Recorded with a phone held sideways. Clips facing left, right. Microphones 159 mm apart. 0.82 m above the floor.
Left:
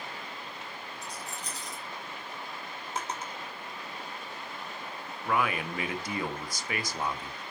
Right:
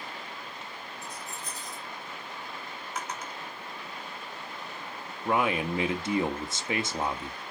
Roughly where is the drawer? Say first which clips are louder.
Left 2 dB; left.